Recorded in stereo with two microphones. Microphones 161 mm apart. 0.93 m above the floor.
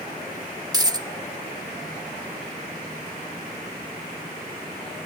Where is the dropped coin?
25° right (ahead or behind), 0.7 m.